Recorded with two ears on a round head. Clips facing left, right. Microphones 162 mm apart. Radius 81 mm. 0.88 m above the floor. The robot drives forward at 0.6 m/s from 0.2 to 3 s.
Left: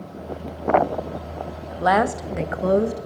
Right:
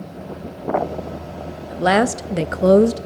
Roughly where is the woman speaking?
Right.